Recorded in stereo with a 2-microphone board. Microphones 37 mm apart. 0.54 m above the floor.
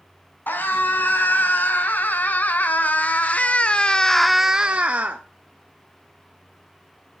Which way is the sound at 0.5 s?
60° left (ahead or behind).